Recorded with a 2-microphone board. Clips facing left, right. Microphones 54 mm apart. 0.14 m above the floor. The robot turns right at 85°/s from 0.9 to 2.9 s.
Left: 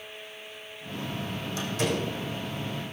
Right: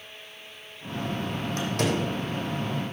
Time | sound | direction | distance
1.6 | a door slam | 45° right (ahead or behind) | 5 m